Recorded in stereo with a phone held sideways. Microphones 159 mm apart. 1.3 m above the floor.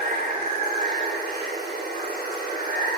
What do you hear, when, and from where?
0.0 s running water: 85° right, 4 m